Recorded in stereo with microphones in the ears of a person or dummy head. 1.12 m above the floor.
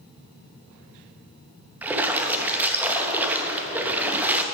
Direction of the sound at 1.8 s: 10° right (ahead or behind).